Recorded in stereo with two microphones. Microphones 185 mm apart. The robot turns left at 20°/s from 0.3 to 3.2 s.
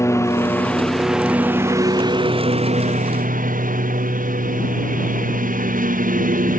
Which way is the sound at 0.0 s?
15° left.